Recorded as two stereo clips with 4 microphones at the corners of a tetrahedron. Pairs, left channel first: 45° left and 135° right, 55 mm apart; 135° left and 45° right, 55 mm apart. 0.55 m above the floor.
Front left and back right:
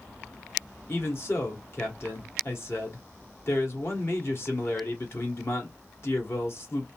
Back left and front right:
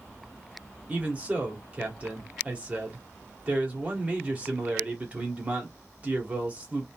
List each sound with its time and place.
0.9 s a man speaking: 15° left, 2 m